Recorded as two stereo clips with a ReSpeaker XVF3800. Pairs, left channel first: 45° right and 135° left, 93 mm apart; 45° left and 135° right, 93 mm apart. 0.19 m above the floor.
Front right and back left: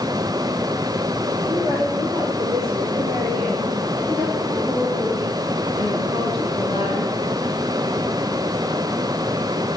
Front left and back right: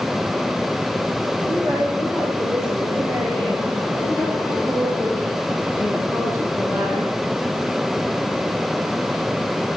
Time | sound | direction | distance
1.4 | a woman speaking | 175° right | 8.5 m